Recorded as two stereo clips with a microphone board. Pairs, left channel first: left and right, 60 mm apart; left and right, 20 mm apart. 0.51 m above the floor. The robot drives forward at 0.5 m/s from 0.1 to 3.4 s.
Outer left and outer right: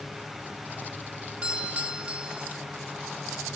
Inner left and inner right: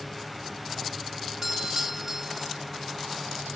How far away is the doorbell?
About 1.1 m.